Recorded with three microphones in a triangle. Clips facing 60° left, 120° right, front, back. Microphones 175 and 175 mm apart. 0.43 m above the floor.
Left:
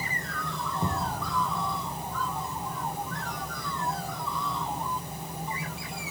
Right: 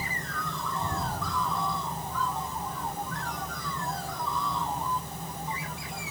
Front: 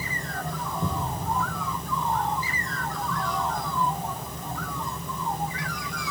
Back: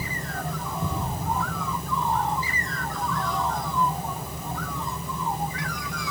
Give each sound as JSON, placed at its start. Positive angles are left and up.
{"t": 0.8, "sound": "a thud", "azimuth_deg": 75, "distance_m": 8.5}